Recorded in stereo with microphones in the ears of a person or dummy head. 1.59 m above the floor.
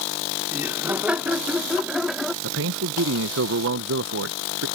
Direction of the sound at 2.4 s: 65° right (ahead or behind).